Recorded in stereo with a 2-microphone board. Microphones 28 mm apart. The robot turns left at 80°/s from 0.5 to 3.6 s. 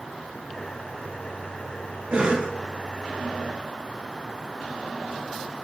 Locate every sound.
2.1 s a cough: 95° right, 1.6 m; by 2.5 s 130° right, 1.6 m